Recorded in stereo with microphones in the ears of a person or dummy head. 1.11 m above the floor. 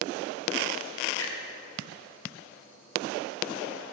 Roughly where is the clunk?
Left.